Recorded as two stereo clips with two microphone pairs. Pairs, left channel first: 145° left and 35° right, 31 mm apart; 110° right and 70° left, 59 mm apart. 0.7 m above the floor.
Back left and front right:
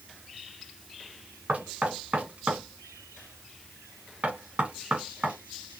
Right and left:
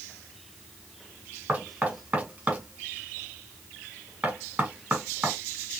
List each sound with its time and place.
1.5 s knocking: straight ahead, 2 m